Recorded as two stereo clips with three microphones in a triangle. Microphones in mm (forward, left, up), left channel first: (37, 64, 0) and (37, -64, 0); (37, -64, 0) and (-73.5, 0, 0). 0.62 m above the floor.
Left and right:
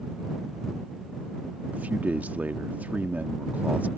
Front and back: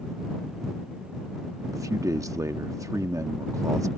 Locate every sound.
1.7 s a man speaking: 160° right